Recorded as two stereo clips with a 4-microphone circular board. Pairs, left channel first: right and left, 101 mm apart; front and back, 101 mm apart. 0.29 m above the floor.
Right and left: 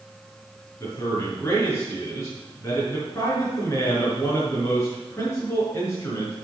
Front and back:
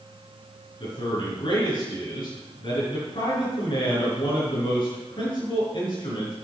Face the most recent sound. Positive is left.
turn(degrees=-30)